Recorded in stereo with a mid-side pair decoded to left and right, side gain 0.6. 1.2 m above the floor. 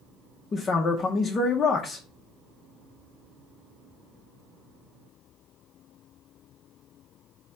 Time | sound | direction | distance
0.5 | a man speaking | 35° left | 0.7 m